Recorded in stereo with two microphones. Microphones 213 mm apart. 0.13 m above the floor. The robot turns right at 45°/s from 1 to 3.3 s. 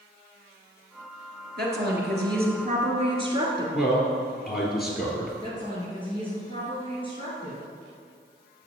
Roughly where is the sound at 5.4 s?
Left.